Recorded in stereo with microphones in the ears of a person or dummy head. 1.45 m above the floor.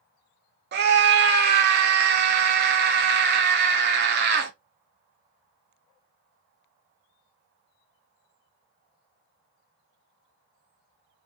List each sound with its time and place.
0.7 s a scream: 55° right (ahead or behind), 0.7 m